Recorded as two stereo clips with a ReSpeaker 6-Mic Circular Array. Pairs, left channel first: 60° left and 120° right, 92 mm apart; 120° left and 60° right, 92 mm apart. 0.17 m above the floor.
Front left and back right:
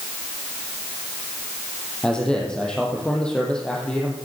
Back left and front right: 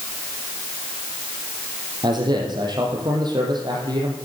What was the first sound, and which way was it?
A man speaking, 20° right.